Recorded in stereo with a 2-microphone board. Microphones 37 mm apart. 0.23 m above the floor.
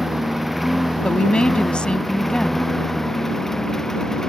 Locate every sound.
0.0 s a lawn mower: 5° right (ahead or behind); by 4.3 s 15° left (ahead or behind)
1.0 s a woman speaking: 25° left (ahead or behind)